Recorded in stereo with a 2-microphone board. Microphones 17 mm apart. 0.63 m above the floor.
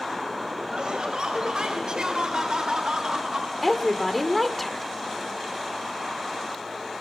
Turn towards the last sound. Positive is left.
turn(degrees=10)  # may be behind; listen again after turning